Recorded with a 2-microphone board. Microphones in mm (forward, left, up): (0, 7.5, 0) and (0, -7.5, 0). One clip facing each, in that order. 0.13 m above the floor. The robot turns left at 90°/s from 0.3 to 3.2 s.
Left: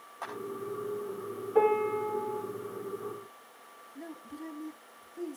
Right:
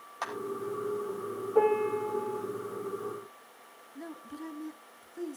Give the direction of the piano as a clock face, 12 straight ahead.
7 o'clock.